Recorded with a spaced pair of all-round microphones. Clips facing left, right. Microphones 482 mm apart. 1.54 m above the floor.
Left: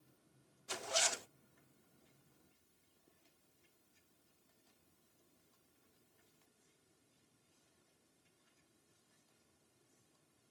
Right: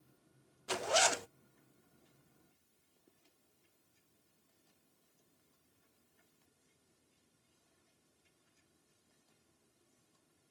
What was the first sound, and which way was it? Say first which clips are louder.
A zipper: right 9 dB; 80° right.